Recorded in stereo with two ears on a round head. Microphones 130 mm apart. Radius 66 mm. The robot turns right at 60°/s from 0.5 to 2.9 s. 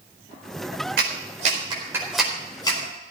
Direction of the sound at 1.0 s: 75° right (ahead or behind).